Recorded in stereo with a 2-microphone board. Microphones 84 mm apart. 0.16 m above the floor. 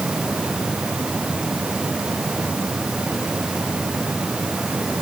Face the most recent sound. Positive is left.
No sound to turn to.